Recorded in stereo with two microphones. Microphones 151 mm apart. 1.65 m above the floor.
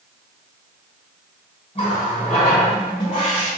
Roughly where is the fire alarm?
I don't hear a fire alarm.